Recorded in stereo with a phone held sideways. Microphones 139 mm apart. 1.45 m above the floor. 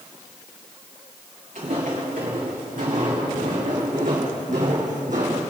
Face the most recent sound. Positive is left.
turn(degrees=-65)  # may be behind; listen again after turning